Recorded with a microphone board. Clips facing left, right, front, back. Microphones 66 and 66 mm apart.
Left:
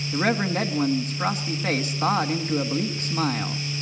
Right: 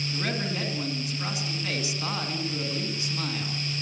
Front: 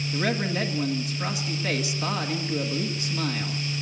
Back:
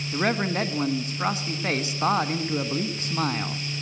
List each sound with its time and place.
0.1 s a man speaking: 130° left, 1.9 m